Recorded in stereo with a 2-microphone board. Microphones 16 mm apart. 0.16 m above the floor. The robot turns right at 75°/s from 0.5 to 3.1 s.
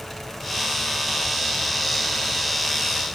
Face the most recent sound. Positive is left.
No sound to turn to.